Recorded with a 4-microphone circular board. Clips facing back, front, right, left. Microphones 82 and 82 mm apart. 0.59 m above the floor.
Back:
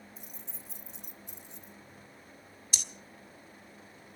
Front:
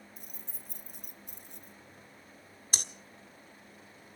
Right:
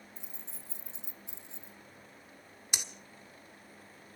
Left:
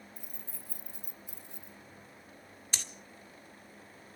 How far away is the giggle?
No giggle in this recording.